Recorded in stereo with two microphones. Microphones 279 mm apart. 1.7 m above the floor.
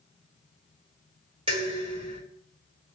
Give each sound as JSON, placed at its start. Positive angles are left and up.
{"t": 1.5, "sound": "dishes clattering", "side_deg": -20, "distance_m": 1.2}